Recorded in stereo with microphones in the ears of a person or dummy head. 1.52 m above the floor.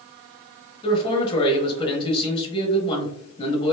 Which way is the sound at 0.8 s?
25° left (ahead or behind).